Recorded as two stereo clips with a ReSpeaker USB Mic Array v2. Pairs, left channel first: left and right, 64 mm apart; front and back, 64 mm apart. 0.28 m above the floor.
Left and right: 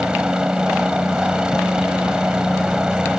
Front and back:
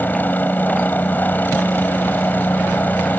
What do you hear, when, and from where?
0.0 s a helicopter: 25° right